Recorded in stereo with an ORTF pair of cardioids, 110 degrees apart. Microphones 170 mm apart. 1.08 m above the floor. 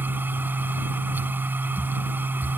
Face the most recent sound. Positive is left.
turn(degrees=-10)